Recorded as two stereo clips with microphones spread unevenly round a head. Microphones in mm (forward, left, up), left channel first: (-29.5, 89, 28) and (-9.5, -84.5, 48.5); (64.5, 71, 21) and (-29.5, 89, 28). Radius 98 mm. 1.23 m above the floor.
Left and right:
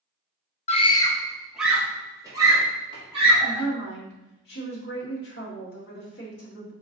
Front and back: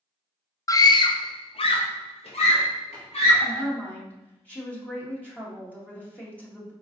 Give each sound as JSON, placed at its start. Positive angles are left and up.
{"t": 0.7, "sound": "a scream", "azimuth_deg": 45, "distance_m": 0.6}
{"t": 3.4, "sound": "a woman speaking", "azimuth_deg": 65, "distance_m": 1.6}